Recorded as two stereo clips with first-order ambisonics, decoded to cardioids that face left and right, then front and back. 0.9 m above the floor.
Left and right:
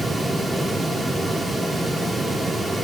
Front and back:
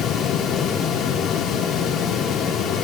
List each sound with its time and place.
Only background noise.